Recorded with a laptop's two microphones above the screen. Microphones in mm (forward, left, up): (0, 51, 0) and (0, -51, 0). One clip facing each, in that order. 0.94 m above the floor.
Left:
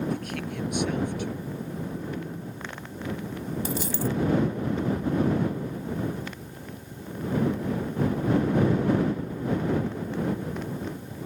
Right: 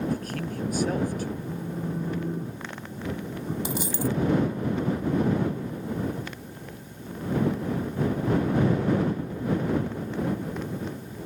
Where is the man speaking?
40° right (ahead or behind).